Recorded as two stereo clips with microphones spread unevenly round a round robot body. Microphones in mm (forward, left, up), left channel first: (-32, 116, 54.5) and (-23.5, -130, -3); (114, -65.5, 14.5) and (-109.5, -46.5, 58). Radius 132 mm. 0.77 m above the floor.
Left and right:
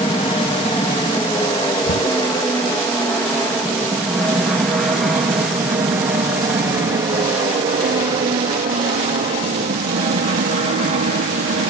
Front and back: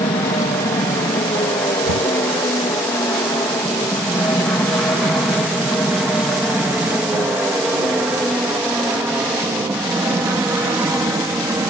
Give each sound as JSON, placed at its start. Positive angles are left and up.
{"t": 0.0, "sound": "an aircraft", "azimuth_deg": 20}
{"t": 1.9, "sound": "knocking", "azimuth_deg": 145}